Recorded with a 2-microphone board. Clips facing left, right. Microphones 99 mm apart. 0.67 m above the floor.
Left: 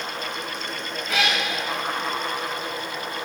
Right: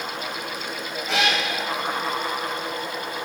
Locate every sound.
1.1 s a cat meowing: 85° right, 7.5 m